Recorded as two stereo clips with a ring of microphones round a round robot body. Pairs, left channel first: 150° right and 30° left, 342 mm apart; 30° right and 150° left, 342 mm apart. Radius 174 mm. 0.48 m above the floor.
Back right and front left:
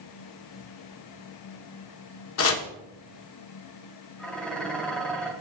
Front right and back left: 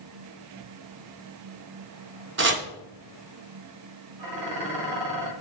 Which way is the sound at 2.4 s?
175° right.